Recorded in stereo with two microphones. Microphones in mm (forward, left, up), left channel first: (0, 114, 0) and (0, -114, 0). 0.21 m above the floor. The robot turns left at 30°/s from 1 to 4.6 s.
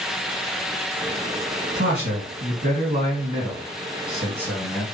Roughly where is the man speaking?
Right.